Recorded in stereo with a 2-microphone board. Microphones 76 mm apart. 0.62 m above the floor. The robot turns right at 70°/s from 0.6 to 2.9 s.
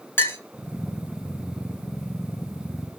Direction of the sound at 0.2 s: 30° left (ahead or behind).